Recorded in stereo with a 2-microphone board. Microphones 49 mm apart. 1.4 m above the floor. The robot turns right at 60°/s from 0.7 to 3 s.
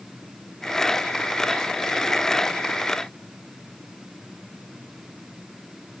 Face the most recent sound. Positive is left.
No sound to turn to.